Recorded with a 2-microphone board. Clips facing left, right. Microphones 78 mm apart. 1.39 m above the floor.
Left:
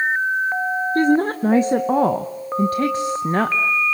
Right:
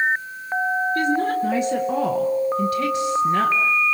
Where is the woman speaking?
40° left (ahead or behind), 1.0 m.